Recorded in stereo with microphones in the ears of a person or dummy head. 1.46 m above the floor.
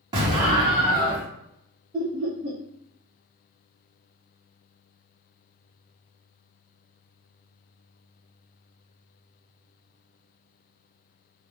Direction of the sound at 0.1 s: 20° right (ahead or behind).